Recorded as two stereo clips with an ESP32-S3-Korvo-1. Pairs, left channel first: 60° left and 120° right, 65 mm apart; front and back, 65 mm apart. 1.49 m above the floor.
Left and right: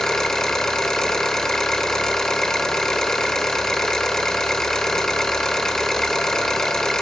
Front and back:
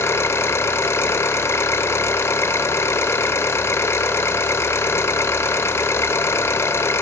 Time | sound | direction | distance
0.0 | an engine running | 20° right | 1.6 m